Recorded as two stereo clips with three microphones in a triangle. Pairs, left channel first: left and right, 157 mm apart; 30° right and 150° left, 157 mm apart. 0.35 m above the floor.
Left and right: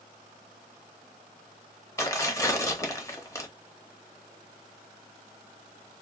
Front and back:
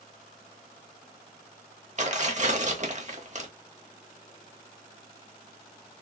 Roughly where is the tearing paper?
Behind left.